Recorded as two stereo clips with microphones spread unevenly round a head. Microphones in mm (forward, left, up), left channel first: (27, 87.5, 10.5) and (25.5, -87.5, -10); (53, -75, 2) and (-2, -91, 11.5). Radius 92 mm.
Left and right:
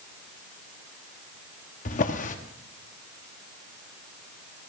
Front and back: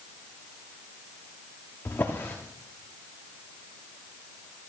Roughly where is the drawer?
Left.